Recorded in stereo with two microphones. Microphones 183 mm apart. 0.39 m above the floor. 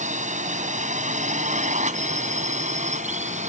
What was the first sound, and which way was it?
A drone, 45° right (ahead or behind).